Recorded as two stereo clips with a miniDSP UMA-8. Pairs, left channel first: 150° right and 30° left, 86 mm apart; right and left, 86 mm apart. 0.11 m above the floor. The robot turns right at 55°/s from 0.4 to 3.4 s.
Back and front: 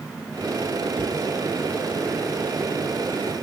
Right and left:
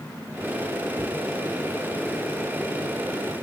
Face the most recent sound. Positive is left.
turn(degrees=160)